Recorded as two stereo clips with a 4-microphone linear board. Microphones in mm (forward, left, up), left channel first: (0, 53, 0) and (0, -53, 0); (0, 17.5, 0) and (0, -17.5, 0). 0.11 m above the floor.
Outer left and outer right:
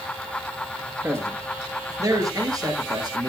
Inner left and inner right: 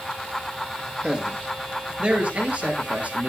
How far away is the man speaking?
About 2.5 m.